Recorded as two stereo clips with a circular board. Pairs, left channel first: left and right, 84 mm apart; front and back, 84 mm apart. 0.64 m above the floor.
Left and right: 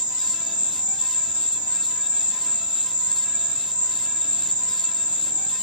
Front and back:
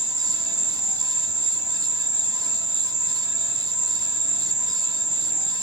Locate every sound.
0.0 s an insect: 55° right, 0.8 m